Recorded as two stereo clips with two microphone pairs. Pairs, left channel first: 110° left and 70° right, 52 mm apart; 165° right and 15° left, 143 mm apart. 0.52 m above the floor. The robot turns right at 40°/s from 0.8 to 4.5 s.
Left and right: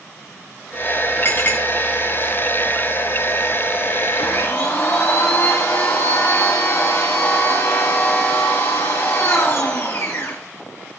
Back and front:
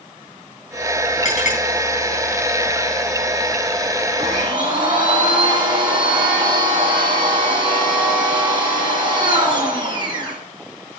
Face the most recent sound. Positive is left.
turn(degrees=70)